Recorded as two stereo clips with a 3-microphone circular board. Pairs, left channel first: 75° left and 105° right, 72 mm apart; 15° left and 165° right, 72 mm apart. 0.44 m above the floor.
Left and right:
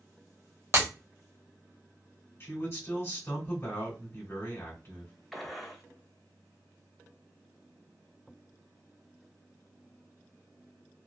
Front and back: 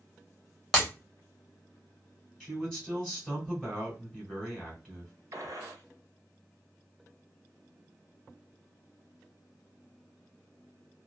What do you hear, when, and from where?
0.7 s breaking glass: 60° right, 1.1 m
2.4 s a man speaking: 95° left, 1.6 m
5.3 s a gunshot: 160° left, 0.7 m